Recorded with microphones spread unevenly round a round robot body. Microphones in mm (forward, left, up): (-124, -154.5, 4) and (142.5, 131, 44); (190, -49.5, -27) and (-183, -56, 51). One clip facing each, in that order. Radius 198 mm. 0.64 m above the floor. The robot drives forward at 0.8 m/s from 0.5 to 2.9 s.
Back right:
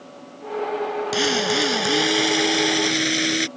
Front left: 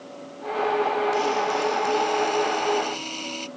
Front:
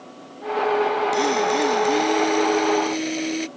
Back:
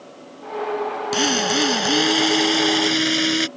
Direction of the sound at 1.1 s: 130° right.